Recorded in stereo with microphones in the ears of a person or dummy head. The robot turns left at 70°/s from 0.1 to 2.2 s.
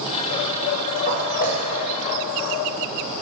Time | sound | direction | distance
1.1 | footsteps | 20° left (ahead or behind) | 1.6 m